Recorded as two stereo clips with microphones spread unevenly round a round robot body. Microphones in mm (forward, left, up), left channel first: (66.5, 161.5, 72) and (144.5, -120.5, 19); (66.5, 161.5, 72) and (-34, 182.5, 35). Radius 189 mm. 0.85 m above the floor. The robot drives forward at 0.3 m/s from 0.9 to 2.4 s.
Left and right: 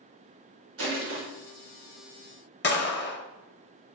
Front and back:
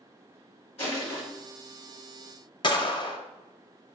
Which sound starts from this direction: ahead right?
Crushing, at 0.8 s.